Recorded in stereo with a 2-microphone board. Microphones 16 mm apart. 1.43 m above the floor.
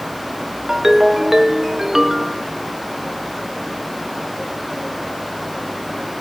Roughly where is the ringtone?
Right.